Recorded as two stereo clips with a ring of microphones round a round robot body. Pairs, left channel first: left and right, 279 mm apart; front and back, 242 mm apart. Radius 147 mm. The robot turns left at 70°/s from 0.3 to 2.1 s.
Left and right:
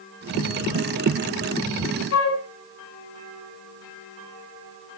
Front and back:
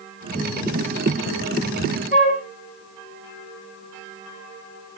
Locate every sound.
2.1 s a flute: 55° left, 4 m